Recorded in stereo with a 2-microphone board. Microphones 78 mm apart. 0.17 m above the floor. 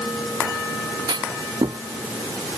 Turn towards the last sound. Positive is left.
turn(degrees=-70)  # may be behind; listen again after turning